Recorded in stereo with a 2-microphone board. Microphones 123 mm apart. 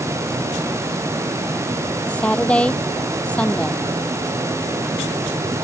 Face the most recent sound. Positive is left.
turn(degrees=10)  # may be behind; listen again after turning